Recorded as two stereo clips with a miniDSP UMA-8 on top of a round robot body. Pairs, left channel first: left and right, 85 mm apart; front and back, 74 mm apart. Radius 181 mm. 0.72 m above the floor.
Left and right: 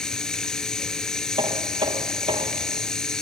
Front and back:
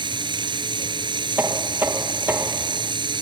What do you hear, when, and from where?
0.0 s running water: 175° left
1.4 s knocking: 115° right